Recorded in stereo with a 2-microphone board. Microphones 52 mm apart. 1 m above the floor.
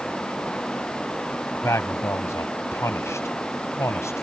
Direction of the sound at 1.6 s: 65° left (ahead or behind).